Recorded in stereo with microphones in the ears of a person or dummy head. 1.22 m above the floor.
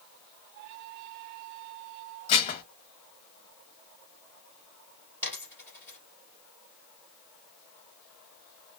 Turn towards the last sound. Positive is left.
turn(degrees=-10)  # may be behind; listen again after turning